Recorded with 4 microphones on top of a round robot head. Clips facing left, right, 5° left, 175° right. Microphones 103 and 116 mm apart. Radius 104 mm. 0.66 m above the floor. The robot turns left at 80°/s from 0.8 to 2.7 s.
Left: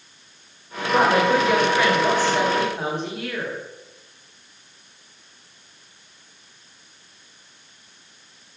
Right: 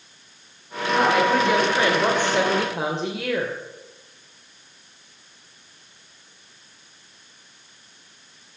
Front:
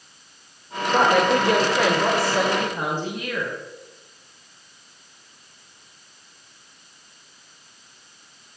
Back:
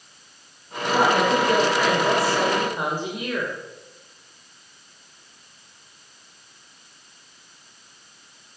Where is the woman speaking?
45° left, 3 m; by 3.5 s 100° right, 3 m.